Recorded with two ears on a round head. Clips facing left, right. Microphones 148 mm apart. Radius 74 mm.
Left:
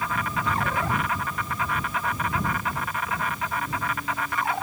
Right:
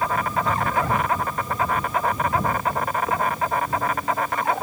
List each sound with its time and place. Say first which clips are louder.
0.0 s an insect: right 5 dB; 35° right (ahead or behind)